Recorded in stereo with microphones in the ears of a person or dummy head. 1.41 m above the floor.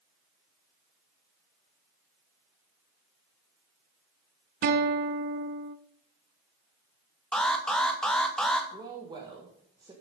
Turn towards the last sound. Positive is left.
turn(degrees=-20)  # may be behind; listen again after turning